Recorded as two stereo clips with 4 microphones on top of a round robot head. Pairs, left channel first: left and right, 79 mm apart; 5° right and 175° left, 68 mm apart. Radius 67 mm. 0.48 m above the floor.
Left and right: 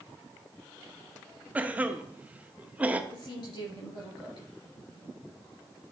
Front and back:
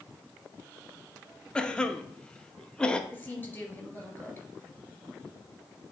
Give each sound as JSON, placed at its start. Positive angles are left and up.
{"t": 1.6, "sound": "a cough", "azimuth_deg": -55, "distance_m": 0.8}
{"t": 3.1, "sound": "a woman speaking", "azimuth_deg": 60, "distance_m": 3.5}